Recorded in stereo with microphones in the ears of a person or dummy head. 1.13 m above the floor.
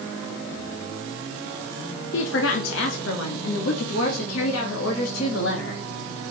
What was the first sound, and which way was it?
A woman speaking, 65° left (ahead or behind).